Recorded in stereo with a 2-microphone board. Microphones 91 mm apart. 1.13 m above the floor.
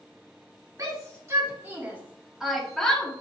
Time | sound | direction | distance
0.8 | a shout | 40° right (ahead or behind) | 2.5 m